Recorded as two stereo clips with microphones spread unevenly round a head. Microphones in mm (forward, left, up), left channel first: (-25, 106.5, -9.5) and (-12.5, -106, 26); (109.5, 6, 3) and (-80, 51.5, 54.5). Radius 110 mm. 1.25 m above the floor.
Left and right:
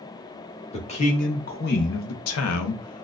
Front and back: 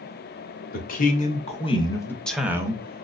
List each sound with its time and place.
0.7 s a man speaking: 30° left, 1.2 m; by 3.0 s 105° left, 0.7 m